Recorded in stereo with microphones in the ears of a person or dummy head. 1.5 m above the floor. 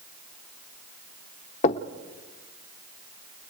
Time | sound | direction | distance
1.6 | knocking | 35° left (ahead or behind) | 0.9 m